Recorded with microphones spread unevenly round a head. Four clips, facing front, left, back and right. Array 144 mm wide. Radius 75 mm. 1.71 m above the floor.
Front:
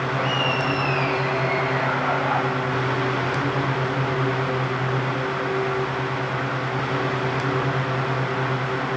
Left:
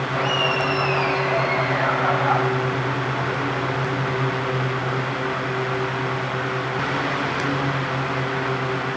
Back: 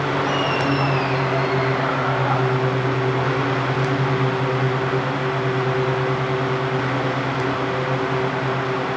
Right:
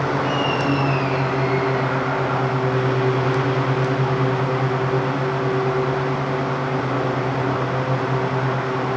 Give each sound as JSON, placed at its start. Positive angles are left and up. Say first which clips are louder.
{"t": 0.1, "sound": "laughter", "louder": "right 2 dB, back 2 dB", "azimuth_deg": 110, "distance_m": 10.0}